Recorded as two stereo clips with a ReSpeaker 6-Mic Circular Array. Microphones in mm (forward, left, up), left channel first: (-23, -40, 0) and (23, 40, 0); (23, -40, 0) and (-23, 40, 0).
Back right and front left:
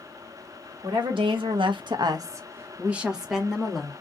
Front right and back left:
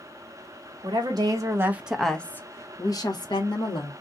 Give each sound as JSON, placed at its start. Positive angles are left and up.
{"t": 0.8, "sound": "a woman speaking", "azimuth_deg": 85, "distance_m": 1.0}